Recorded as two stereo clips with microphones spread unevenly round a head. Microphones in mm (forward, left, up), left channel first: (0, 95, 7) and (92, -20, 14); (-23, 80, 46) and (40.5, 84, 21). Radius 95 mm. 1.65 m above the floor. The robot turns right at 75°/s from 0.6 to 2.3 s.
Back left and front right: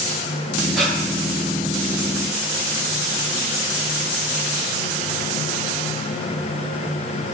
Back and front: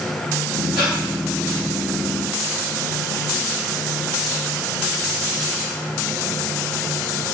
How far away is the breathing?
About 3 m.